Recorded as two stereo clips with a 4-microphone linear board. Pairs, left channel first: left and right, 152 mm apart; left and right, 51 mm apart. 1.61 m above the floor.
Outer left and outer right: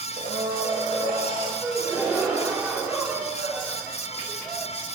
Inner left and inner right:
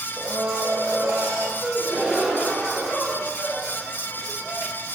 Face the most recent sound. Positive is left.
turn(degrees=-15)  # may be behind; listen again after turning